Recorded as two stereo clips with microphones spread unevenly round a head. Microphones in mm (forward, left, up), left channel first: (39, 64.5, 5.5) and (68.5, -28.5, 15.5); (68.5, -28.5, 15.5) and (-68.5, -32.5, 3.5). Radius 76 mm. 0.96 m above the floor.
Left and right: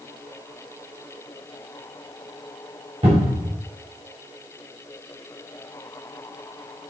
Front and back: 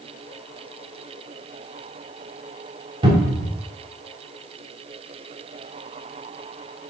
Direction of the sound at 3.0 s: 125° right.